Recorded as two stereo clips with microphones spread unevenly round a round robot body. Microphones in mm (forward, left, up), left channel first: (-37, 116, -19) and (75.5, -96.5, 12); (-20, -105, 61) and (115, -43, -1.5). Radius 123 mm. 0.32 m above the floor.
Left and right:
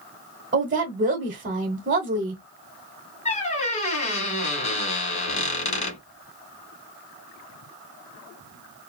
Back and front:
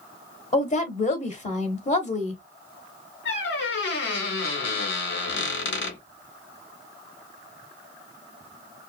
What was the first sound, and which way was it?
A woman speaking, 105° right.